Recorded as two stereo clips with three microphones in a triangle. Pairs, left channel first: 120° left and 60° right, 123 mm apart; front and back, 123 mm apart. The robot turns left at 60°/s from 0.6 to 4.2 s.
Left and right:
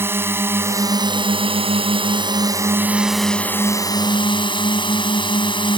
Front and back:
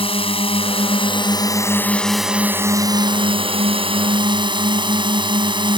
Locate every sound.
0.0 s a drone: 5° left; by 5.8 s 150° left